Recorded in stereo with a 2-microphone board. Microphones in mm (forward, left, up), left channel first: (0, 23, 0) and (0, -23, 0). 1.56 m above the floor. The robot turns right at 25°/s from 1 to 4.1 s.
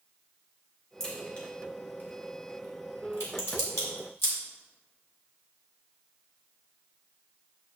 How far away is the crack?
About 2 m.